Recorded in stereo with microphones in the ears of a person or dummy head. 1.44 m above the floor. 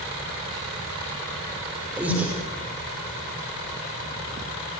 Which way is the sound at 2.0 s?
10° right (ahead or behind).